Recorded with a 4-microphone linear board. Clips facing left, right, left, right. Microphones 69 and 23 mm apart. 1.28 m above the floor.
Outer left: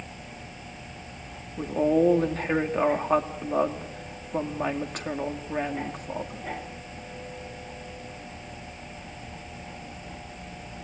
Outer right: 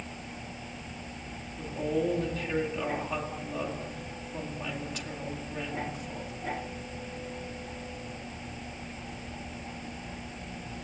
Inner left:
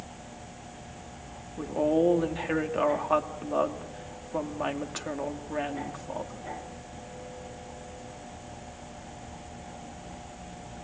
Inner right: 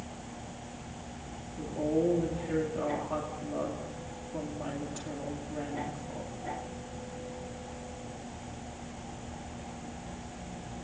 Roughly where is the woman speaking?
Left.